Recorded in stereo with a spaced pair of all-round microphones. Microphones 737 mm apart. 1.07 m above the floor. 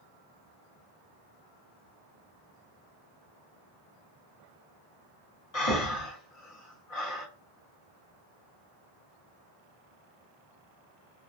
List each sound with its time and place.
5.5 s breathing: 50° left (ahead or behind), 1.4 m